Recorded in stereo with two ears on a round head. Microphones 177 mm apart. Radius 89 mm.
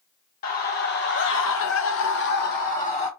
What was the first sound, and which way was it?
A scream, 45° left (ahead or behind).